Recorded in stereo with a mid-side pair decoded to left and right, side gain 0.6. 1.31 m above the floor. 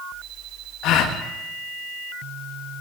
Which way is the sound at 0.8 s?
65° left.